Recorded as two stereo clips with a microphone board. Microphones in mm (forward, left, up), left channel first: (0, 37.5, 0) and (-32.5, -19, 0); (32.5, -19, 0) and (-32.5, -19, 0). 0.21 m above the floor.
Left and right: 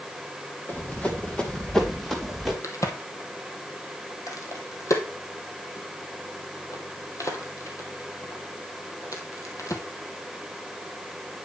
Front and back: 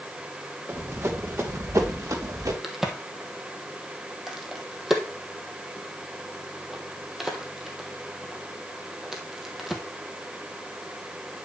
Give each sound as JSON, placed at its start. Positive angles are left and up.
{"t": 0.7, "sound": "running footsteps", "azimuth_deg": 125, "distance_m": 2.0}
{"t": 2.6, "sound": "a crack", "azimuth_deg": 95, "distance_m": 1.8}